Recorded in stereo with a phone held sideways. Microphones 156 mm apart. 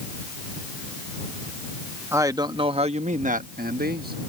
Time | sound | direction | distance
2.1 | a man speaking | 15° right (ahead or behind) | ?